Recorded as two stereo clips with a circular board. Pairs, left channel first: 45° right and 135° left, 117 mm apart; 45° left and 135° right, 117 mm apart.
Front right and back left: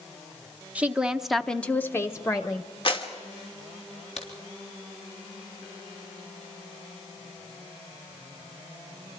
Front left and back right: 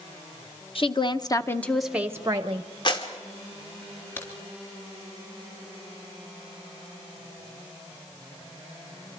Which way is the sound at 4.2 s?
25° right.